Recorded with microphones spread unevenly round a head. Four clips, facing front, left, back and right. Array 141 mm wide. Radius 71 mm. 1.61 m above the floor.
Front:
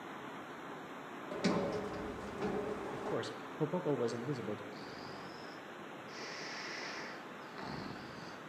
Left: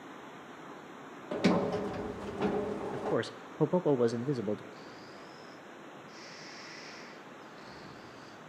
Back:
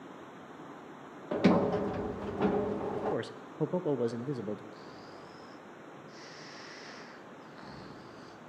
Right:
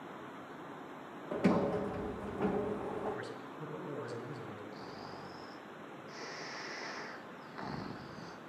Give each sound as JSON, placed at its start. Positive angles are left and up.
{"t": 1.3, "sound": "a sliding door", "azimuth_deg": 165, "distance_m": 1.1}
{"t": 2.9, "sound": "a man speaking", "azimuth_deg": 105, "distance_m": 0.9}
{"t": 4.7, "sound": "snoring", "azimuth_deg": -65, "distance_m": 1.5}